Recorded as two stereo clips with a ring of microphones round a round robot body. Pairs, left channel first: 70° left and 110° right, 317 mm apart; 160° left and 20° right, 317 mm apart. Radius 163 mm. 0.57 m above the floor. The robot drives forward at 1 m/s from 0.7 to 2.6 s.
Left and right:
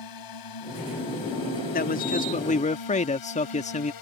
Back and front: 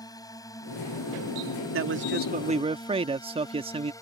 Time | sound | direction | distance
0.0 | a drone | 80° left | ?
1.7 | a man speaking | 10° left | ?